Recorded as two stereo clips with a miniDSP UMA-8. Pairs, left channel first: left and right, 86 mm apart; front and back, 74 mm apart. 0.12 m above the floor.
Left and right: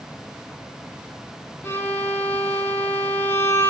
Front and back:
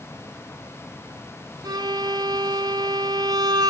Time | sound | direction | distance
1.6 | a violin | 155° left | 1.7 m